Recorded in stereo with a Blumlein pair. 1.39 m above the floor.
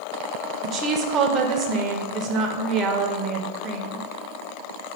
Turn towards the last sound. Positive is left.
turn(degrees=-30)